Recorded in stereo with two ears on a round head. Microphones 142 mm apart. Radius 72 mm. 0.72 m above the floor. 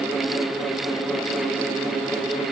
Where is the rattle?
No rattle in this recording.